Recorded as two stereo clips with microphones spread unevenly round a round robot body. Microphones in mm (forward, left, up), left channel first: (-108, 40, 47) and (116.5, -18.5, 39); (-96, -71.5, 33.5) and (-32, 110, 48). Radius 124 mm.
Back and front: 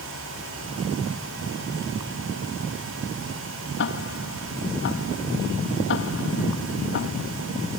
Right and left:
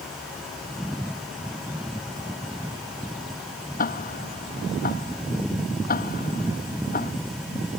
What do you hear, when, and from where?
3.8 s ticking: 150° right